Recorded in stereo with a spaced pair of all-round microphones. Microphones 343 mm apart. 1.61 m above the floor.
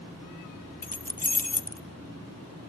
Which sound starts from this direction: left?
Keys jangling, at 0.8 s.